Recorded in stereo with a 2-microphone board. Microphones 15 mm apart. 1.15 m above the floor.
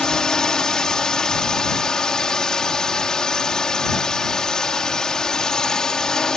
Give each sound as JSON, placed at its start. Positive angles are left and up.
{"t": 0.0, "sound": "a drone", "side_deg": 45}